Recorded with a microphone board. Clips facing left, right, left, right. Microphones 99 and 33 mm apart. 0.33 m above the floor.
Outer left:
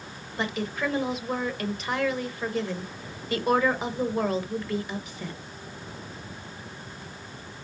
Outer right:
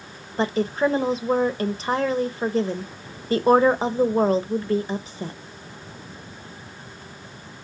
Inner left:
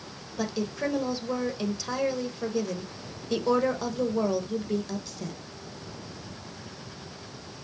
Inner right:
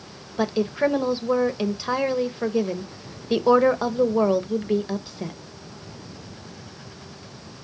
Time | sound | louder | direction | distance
0.4 | a woman speaking | outer right 8 dB, inner right 8 dB | 30° right (ahead or behind) | 1.0 m